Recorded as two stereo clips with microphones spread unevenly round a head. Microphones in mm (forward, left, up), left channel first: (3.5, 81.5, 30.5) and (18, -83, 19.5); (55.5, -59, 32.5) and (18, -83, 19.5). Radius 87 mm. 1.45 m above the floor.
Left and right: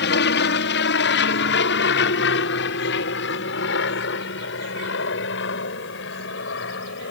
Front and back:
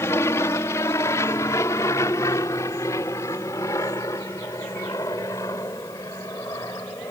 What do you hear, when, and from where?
0.0 s an aircraft: 80° left